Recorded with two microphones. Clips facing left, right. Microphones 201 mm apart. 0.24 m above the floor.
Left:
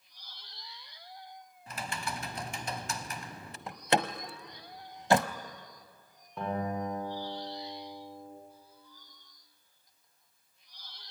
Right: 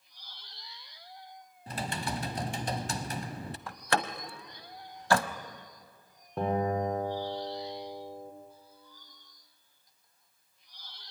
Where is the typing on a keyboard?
35° right (ahead or behind), 0.9 m.